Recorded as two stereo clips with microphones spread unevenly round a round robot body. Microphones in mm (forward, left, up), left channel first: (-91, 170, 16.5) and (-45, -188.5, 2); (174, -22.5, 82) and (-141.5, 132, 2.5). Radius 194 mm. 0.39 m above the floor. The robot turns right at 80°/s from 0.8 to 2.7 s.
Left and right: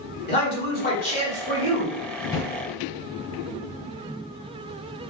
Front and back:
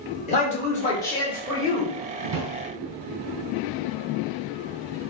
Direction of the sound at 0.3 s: 50° left.